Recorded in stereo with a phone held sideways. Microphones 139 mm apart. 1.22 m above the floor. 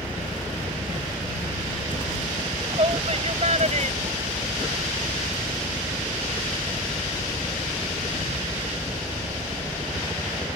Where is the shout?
40° right (ahead or behind); by 5.0 s 65° right (ahead or behind).